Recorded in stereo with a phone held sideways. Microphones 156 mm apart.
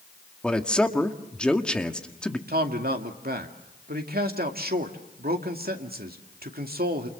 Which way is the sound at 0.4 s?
5° left (ahead or behind).